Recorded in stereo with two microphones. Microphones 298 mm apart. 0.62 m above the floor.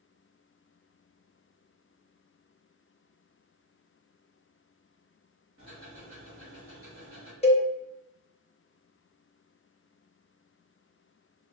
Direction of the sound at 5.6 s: 45° right (ahead or behind).